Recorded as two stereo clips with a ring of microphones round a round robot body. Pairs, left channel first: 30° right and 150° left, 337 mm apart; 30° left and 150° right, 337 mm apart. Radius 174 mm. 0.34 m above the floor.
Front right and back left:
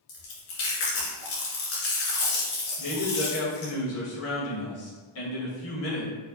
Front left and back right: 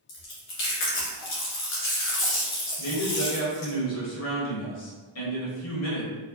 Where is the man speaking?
5° left, 1.8 m.